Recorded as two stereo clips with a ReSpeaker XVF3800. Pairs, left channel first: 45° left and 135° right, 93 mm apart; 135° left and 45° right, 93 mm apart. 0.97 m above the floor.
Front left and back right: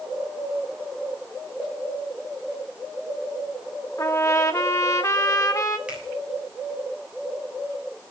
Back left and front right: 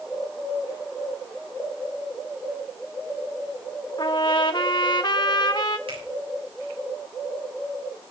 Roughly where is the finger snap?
Ahead right.